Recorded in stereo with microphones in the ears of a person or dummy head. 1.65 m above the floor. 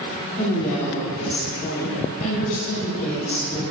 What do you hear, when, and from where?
0.4 s a woman speaking: 25° left (ahead or behind), 3.5 m